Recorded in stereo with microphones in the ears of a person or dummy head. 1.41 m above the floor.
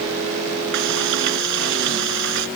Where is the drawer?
I don't hear a drawer.